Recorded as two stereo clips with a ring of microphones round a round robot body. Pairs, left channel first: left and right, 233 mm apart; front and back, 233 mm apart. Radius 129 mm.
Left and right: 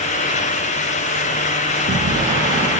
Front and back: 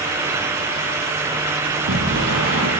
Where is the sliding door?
145° right, 7 m.